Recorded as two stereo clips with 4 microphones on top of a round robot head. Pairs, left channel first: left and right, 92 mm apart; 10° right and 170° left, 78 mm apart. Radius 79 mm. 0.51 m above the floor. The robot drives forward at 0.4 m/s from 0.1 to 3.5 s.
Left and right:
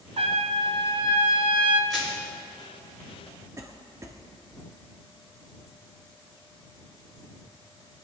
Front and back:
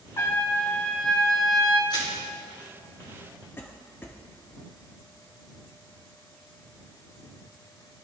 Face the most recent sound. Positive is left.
turn(degrees=-60)